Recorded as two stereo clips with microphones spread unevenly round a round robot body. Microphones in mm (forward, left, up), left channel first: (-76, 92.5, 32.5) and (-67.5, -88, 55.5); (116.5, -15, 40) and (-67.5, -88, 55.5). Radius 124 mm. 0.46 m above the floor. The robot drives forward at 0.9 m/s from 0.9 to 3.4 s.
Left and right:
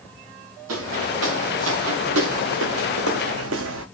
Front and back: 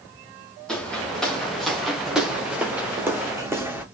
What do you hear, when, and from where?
0.7 s footsteps: 65° right, 3.5 m; by 3.9 s 80° right, 2.5 m